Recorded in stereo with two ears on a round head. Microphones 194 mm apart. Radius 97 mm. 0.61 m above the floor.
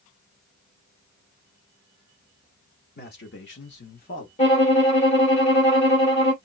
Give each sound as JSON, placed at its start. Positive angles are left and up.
{"t": 3.0, "sound": "a man speaking", "side_deg": 45, "distance_m": 1.5}
{"t": 4.4, "sound": "a violin", "side_deg": 30, "distance_m": 1.3}